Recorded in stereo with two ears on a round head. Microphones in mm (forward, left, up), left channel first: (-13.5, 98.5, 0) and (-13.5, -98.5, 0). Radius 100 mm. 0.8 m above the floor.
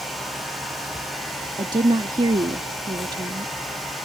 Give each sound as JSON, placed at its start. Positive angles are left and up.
{"t": 1.6, "sound": "a woman speaking", "side_deg": -20}